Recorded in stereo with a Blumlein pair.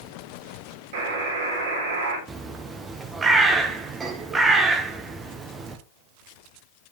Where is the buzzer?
60° right, 4 m.